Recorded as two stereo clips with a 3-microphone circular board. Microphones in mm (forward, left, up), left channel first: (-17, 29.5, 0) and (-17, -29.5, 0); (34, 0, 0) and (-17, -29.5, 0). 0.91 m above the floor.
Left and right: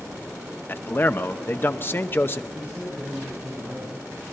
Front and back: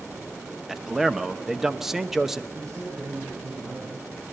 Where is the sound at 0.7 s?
130° left, 0.9 m.